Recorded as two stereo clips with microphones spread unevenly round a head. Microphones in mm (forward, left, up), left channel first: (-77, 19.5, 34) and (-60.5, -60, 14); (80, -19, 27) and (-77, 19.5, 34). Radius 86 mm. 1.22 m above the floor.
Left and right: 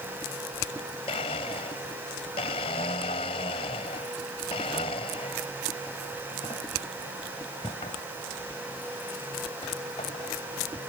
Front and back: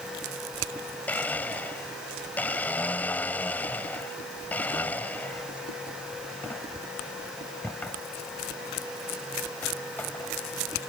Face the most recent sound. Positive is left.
turn(degrees=70)